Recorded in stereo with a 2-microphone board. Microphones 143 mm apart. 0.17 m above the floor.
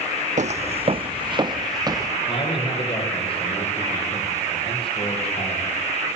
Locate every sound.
0.4 s footsteps: 55° right (ahead or behind), 0.6 m; by 2.1 s 25° right (ahead or behind), 1.6 m
2.3 s a man speaking: 35° left (ahead or behind), 7 m